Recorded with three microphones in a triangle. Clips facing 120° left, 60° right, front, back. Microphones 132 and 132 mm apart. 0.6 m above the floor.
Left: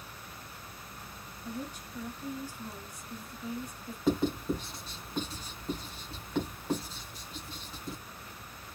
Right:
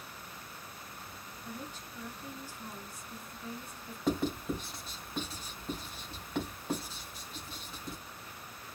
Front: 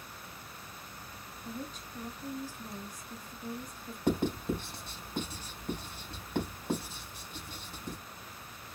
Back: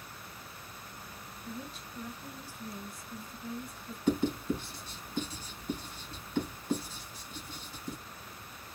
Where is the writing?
30° left, 3 m.